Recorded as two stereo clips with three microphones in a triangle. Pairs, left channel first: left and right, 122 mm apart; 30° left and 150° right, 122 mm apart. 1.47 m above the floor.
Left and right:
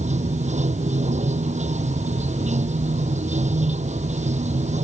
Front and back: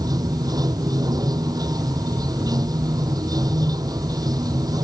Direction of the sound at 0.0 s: 95° right.